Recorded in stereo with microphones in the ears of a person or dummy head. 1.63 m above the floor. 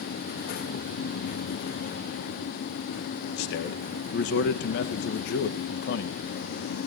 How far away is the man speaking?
About 1.6 m.